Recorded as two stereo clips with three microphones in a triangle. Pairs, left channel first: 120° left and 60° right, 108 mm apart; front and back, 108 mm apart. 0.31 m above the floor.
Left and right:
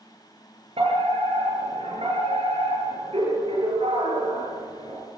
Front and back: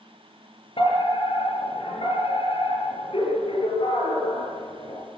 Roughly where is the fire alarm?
Ahead right.